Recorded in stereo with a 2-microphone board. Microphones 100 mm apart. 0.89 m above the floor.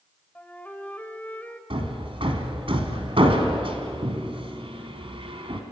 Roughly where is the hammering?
Right.